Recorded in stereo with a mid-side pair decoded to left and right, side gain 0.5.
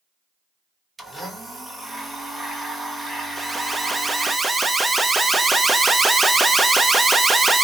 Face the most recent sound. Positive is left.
turn(degrees=-15)